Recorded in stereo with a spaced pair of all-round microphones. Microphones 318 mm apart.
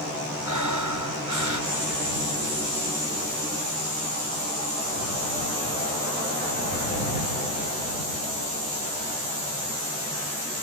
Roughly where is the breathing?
Right.